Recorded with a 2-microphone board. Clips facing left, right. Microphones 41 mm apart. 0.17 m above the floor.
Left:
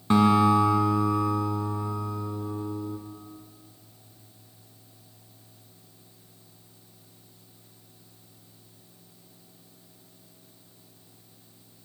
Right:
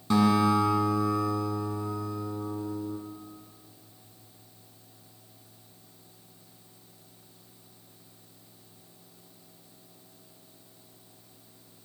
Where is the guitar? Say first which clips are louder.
Left 3 dB; 35° left (ahead or behind), 1.0 m.